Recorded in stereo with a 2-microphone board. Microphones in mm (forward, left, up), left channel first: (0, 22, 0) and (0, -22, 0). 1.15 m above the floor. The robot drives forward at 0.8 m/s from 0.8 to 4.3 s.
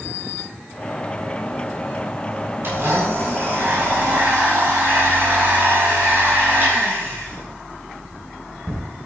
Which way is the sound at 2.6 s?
60° right (ahead or behind).